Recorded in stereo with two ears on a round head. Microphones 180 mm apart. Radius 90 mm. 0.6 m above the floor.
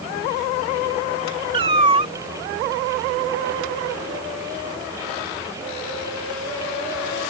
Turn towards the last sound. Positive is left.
turn(degrees=-25)  # may be behind; listen again after turning